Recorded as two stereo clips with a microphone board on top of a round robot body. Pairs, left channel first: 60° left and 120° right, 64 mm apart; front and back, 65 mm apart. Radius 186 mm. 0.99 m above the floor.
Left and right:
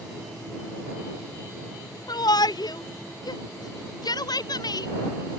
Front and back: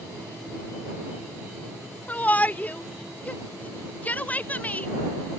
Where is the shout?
70° left.